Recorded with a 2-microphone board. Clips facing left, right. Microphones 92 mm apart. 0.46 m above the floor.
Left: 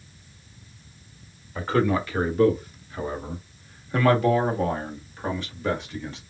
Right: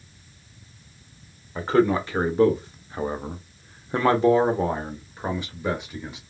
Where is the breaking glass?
I don't hear breaking glass.